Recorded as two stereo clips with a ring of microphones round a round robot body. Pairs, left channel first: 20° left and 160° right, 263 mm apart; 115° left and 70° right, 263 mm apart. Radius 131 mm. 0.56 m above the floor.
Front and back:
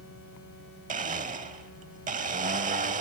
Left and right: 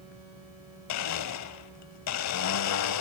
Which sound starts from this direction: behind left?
A blender, at 0.9 s.